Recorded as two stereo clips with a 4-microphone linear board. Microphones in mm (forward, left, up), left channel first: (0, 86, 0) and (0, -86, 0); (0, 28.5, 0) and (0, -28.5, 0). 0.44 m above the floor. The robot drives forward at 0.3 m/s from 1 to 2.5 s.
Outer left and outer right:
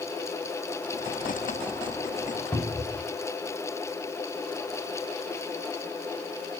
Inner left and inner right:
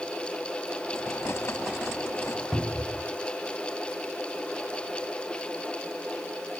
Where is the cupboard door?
5° left (ahead or behind), 3 m.